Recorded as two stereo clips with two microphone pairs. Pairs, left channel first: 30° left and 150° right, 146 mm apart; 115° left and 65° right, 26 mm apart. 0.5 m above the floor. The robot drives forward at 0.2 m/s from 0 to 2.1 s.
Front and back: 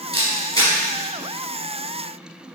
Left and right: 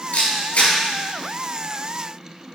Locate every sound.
0.1 s a camera shutter: 100° left, 4 m